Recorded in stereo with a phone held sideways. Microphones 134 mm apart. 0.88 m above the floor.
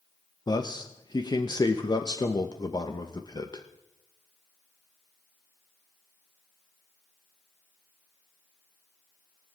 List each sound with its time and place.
0.5 s a man speaking: 30° left (ahead or behind), 0.8 m